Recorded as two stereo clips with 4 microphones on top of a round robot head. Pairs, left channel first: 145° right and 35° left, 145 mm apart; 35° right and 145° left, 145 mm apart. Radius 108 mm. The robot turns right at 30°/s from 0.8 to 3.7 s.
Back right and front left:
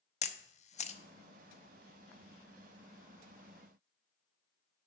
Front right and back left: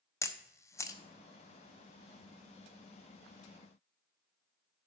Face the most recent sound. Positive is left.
turn(degrees=-20)